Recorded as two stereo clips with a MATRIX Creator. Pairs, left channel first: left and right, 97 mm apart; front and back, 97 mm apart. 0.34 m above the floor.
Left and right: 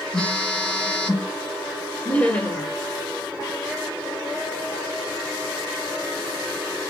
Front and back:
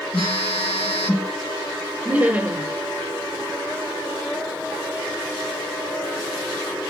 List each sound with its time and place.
0.1 s a phone buzzing: 10° left, 1.3 m
2.0 s laughter: 140° left, 0.9 m